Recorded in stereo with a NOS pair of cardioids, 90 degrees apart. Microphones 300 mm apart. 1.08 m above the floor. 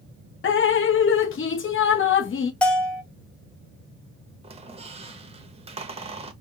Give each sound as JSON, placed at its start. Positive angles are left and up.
{"t": 0.4, "sound": "dripping", "azimuth_deg": 45, "distance_m": 0.8}
{"t": 2.6, "sound": "a bell", "azimuth_deg": 5, "distance_m": 1.0}
{"t": 4.4, "sound": "a squeak", "azimuth_deg": -20, "distance_m": 0.8}